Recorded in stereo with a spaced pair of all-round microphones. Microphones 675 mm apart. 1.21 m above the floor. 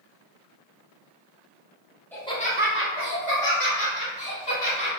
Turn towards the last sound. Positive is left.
turn(degrees=40)  # may be behind; listen again after turning